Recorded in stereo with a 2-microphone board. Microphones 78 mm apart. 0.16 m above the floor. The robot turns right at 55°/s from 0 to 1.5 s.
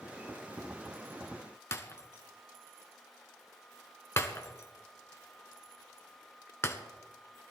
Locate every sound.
1.7 s breaking glass: 35° left (ahead or behind), 1.2 m